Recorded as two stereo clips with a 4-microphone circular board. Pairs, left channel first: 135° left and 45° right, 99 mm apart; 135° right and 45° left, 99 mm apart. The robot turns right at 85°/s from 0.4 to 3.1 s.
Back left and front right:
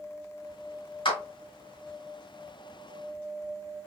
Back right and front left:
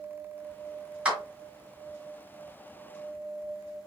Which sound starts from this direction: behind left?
A clap, at 1.1 s.